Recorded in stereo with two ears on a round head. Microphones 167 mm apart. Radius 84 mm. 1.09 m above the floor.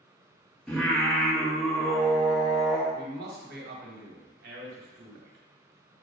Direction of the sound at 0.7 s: 5° left (ahead or behind).